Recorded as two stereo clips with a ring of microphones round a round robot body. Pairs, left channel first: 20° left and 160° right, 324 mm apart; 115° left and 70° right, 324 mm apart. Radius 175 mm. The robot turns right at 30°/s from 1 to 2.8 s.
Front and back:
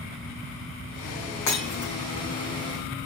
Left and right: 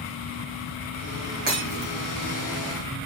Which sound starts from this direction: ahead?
Breaking glass, at 1.5 s.